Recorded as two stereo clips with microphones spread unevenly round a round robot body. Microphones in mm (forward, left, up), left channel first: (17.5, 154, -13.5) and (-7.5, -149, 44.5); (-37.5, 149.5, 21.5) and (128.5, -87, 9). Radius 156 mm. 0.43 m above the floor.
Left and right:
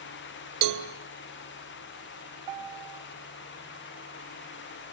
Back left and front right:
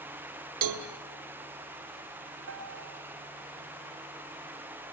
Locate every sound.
0.6 s a cowbell: 55° right, 2.5 m
2.5 s a piano: 105° right, 3 m